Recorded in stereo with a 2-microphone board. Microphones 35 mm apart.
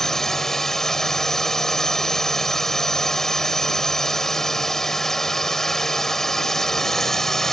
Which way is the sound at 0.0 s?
15° left (ahead or behind).